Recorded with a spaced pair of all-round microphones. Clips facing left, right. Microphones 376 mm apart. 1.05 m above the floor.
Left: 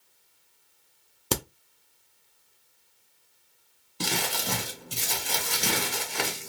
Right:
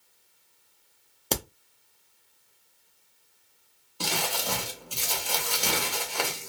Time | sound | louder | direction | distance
1.3 | a crack | left 1 dB | 20° left (ahead or behind) | 0.5 m
4.0 | crumpling | left 1 dB | 30° left (ahead or behind) | 0.7 m